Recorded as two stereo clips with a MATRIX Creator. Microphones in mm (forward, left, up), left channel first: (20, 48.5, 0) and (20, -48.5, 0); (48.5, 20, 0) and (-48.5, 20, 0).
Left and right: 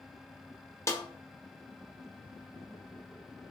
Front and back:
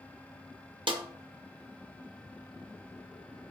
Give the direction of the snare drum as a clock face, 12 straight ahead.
7 o'clock.